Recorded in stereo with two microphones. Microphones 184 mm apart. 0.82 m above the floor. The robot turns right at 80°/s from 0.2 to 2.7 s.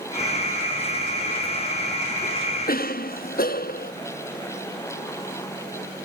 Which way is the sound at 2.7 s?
55° left (ahead or behind).